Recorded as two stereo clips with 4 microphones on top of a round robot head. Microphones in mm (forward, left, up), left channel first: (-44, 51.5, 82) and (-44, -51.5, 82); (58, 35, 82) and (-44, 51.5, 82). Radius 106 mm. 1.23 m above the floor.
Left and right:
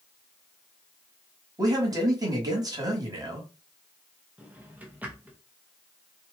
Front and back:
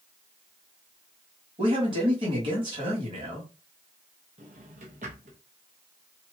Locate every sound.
1.6 s a man speaking: 145° right, 1.6 m
4.4 s a drawer: 165° right, 0.7 m